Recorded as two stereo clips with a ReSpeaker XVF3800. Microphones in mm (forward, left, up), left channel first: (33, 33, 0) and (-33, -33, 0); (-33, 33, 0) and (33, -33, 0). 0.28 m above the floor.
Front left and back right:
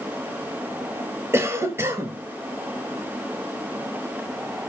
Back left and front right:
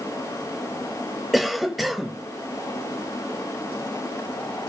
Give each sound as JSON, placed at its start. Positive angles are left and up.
{"t": 1.3, "sound": "a cough", "azimuth_deg": -135, "distance_m": 1.0}